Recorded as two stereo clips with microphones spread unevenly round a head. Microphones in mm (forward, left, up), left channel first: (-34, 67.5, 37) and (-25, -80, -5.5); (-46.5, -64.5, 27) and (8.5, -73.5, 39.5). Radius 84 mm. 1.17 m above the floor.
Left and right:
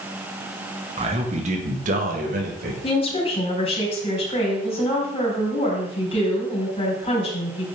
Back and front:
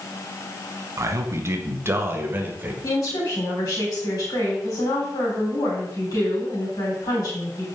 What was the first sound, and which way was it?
A man speaking, 40° right.